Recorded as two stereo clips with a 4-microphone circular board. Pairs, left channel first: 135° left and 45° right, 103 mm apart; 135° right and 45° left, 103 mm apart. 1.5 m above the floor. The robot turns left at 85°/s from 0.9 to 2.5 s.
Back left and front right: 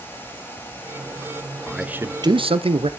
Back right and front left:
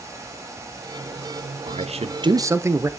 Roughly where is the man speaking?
Ahead left.